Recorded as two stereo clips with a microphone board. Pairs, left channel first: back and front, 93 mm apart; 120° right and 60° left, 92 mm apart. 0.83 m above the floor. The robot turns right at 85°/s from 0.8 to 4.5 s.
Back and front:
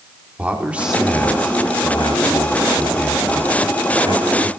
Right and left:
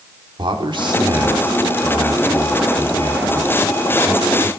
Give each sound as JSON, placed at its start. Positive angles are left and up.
{"t": 0.4, "sound": "a man speaking", "azimuth_deg": 75, "distance_m": 3.0}